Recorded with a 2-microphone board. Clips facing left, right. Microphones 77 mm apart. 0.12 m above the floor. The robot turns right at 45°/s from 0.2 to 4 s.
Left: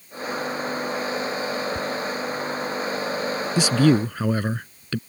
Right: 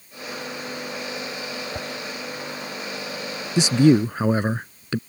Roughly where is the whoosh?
Right.